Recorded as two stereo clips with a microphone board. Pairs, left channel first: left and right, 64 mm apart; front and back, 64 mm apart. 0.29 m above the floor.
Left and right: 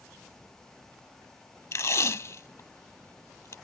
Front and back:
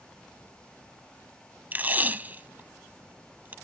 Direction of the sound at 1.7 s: 120° left.